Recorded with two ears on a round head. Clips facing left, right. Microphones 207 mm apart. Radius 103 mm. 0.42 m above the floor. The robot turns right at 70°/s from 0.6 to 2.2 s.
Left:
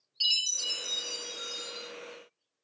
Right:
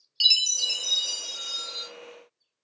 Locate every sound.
0.2 s a chime: 140° right, 0.9 m; by 1.9 s 50° right, 0.9 m